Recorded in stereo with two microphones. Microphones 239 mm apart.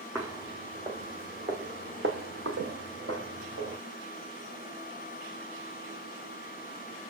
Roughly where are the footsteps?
Centre.